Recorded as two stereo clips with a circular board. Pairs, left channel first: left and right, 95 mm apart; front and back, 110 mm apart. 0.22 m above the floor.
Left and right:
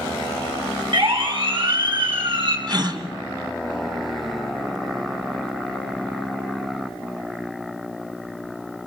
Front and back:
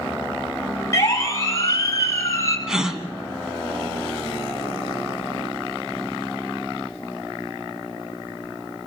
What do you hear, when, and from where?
0.9 s a siren: 65° right, 5 m; by 2.6 s 60° right, 6 m
2.7 s a gasp: 95° right, 2.5 m